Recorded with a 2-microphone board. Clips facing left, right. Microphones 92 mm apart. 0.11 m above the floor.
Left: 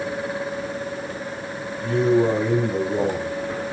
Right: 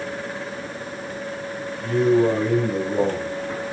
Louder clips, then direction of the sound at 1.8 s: Right 1 dB; 5° right (ahead or behind).